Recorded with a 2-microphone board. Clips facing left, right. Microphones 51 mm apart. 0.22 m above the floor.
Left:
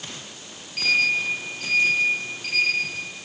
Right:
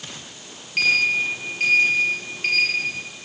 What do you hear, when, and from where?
0.8 s a sliding door: 55° right (ahead or behind), 4.5 m